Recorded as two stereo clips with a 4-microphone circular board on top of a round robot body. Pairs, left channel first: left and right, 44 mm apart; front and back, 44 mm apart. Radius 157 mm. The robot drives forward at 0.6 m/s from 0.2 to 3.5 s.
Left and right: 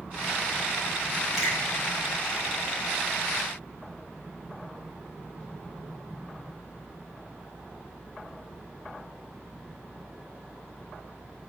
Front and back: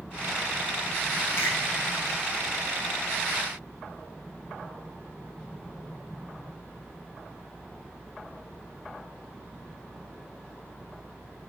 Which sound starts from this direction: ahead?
A finger snap, at 1.4 s.